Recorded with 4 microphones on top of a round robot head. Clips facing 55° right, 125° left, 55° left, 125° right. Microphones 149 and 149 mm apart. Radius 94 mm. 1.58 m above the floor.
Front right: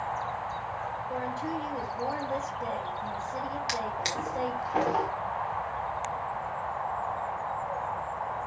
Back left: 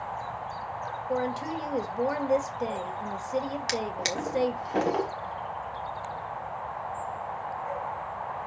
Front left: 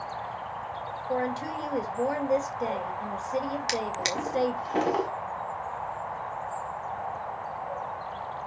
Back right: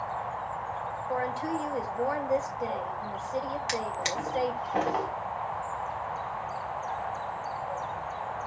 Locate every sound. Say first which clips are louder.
1.1 s a woman speaking: back left 5 dB, front left 1 dB; 125° left, 2 m
3.7 s a drawer: back left 2 dB, front left 2 dB; 100° left, 1.4 m